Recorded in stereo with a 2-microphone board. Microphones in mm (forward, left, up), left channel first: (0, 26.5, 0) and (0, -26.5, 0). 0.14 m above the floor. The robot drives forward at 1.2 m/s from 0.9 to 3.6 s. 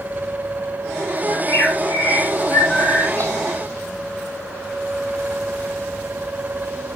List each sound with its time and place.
1.3 s a bird: 40° left (ahead or behind), 8.5 m; by 3.3 s 30° left (ahead or behind), 10.5 m